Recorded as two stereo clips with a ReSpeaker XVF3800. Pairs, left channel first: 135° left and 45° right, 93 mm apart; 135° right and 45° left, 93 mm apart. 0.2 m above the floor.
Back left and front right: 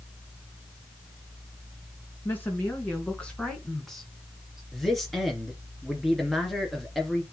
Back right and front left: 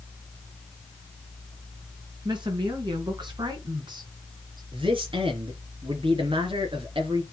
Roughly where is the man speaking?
Ahead left.